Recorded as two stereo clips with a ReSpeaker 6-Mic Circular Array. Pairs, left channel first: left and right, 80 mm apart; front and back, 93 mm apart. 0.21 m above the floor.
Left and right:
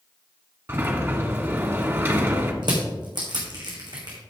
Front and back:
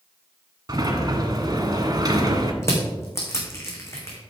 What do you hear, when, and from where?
0.7 s a sliding door: 145° right, 1.3 m
2.6 s crushing: 60° right, 3 m